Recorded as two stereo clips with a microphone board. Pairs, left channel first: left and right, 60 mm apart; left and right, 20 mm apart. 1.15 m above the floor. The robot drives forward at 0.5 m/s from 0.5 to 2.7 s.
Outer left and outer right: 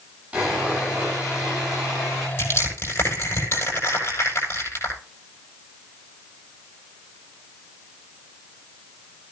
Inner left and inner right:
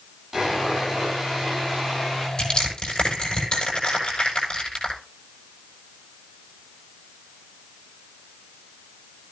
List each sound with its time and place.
0.3 s sawing: 25° right (ahead or behind), 8 m; by 2.3 s 20° right (ahead or behind), 8.5 m
2.4 s crushing: 40° left (ahead or behind), 7 m